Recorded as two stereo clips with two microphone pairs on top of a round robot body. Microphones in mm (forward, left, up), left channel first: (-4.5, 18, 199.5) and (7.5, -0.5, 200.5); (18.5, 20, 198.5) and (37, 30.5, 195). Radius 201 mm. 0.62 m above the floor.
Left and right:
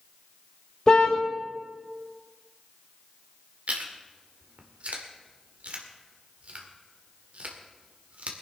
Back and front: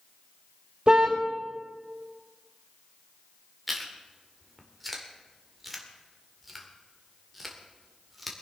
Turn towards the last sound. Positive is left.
turn(degrees=-60)